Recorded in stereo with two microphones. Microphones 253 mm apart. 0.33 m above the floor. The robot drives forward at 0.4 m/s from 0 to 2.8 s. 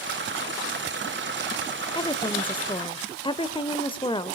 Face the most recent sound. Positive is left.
turn(degrees=20)  # may be behind; listen again after turning